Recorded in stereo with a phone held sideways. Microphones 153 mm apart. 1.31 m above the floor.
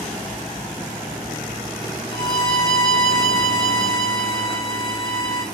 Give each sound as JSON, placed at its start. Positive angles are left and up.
{"t": 2.1, "sound": "a violin", "side_deg": 35, "distance_m": 0.8}